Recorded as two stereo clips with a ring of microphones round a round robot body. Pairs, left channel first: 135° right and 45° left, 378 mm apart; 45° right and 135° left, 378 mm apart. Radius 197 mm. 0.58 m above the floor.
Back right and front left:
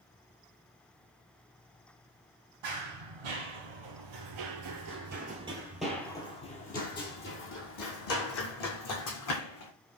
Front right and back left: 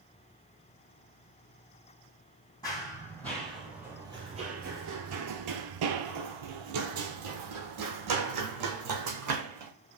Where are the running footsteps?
35° left, 1.6 m; by 9.7 s straight behind, 2.5 m.